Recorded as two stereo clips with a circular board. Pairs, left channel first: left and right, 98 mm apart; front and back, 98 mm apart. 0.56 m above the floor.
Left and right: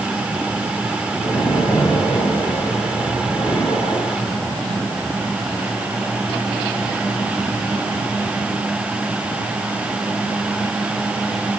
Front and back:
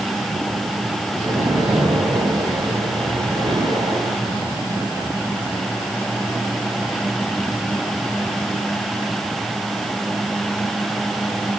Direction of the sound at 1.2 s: 135° left.